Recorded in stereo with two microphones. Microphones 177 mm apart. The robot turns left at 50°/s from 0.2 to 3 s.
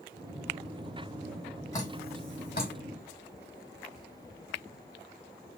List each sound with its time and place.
1.7 s dripping: 15° left (ahead or behind), 1.5 m; by 2.7 s 60° left (ahead or behind), 1.5 m